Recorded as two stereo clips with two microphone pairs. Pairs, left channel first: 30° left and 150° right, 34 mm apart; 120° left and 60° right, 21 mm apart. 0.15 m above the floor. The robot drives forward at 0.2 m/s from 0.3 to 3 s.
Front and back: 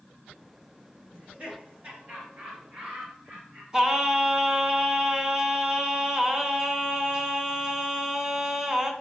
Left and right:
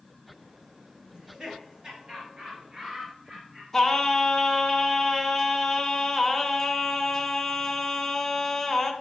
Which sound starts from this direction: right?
Laughter, at 1.1 s.